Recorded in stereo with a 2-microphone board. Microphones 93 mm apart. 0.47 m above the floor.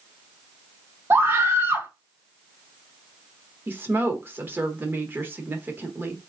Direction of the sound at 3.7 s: 25° right (ahead or behind).